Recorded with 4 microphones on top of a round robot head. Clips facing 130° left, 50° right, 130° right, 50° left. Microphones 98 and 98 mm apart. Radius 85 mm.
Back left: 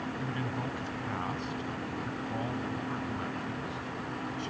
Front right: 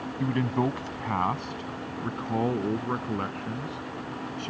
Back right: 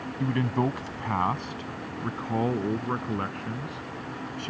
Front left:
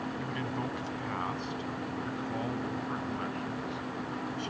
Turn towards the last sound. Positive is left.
turn(degrees=-90)